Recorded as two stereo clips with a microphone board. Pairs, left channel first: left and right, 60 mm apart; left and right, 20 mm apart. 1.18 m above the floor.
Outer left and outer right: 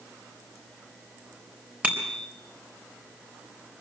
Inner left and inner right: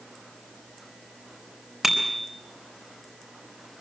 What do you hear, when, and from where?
1.8 s a bicycle bell: 25° right (ahead or behind), 4 m